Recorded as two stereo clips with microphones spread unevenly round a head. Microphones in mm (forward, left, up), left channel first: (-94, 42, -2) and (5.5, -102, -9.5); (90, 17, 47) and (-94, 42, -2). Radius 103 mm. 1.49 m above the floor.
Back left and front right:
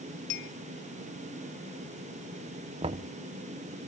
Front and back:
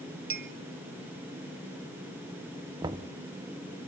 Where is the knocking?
110° right, 0.6 m.